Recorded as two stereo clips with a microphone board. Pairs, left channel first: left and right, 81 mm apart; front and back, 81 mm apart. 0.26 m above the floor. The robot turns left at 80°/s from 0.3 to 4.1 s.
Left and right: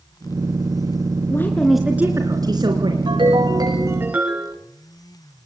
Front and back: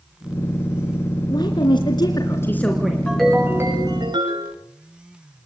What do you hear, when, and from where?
1.3 s a woman speaking: 35° left, 3 m; by 3.0 s 100° right, 3 m
3.1 s a ringtone: 75° right, 8.5 m; by 4.5 s 160° right, 8.5 m